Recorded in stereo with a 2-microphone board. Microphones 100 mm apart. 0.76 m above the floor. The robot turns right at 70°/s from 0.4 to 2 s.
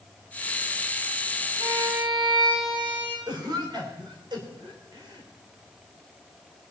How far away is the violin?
About 3 m.